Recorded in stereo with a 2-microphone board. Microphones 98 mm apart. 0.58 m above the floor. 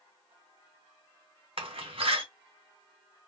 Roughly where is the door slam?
Right.